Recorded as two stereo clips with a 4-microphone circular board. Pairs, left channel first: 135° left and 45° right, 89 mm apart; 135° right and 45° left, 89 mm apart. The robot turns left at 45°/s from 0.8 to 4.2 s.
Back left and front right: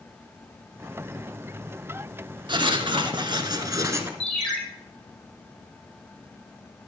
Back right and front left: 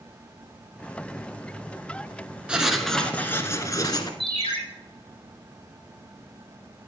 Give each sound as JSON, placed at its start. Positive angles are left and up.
{"t": 2.5, "sound": "writing", "azimuth_deg": -30, "distance_m": 1.3}
{"t": 4.2, "sound": "a ringtone", "azimuth_deg": -145, "distance_m": 6.0}